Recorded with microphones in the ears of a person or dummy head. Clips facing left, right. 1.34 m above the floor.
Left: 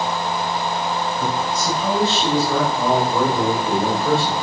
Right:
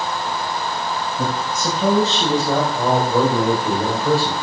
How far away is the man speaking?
About 6 m.